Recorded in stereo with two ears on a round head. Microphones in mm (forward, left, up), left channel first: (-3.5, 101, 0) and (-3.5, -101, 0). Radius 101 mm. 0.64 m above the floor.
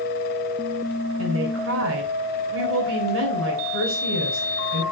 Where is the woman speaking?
60° right (ahead or behind), 3 m.